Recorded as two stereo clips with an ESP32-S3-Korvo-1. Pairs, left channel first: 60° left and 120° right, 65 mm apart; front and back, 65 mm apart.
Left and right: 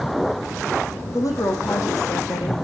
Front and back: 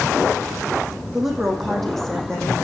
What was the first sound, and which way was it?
A woman speaking, 95° left.